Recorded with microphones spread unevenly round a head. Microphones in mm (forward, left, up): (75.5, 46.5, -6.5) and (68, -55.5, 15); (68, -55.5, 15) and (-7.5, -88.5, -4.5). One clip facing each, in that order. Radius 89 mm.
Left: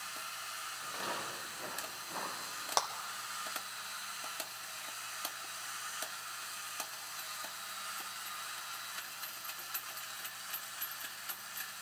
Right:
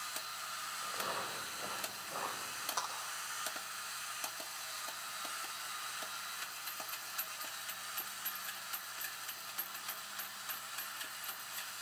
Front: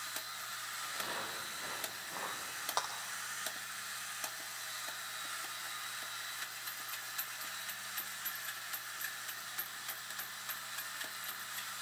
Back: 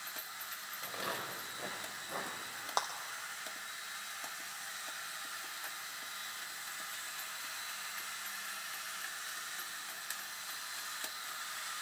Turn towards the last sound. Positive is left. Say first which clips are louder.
# left 7 dB, back 2 dB
turn(degrees=125)